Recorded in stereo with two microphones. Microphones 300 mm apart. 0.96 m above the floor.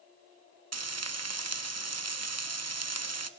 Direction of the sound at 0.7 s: 60° right (ahead or behind).